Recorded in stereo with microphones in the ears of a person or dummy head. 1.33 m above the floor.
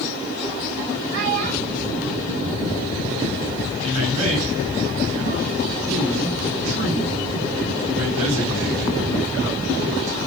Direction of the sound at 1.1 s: 55° right (ahead or behind).